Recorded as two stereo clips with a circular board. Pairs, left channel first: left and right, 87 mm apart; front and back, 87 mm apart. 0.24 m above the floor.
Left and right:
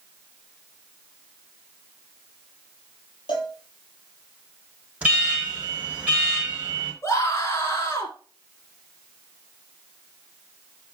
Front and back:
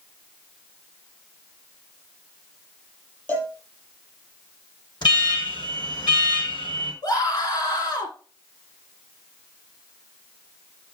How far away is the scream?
About 2.5 m.